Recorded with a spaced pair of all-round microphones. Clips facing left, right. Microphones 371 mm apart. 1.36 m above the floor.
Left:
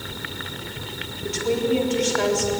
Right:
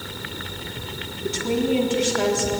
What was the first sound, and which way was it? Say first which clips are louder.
A woman speaking: even; 50° right (ahead or behind).